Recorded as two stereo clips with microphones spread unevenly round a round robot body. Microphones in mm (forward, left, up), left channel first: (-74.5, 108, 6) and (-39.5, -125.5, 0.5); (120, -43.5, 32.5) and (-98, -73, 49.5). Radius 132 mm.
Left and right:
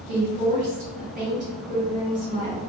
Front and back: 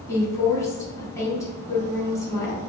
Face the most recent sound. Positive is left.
turn(degrees=-55)